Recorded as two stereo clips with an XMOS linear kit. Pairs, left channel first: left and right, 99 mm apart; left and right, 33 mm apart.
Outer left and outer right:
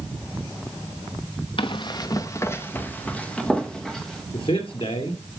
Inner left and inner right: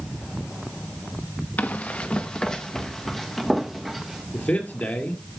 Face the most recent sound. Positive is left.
turn(degrees=65)  # may be behind; listen again after turning